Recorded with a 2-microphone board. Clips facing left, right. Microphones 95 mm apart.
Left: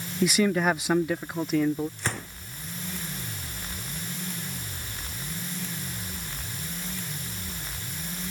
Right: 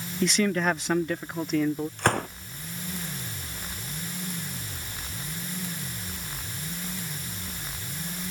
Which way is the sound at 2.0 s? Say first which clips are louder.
Right 8 dB; 60° right (ahead or behind).